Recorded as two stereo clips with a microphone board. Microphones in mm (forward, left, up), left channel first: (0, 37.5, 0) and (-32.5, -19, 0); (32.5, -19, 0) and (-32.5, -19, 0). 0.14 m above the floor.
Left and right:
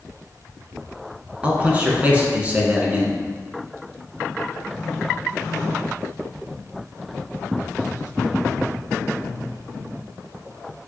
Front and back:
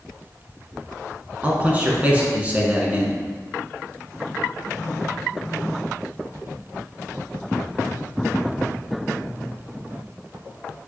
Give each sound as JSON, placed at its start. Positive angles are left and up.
{"t": 1.4, "sound": "a man speaking", "azimuth_deg": -150, "distance_m": 1.3}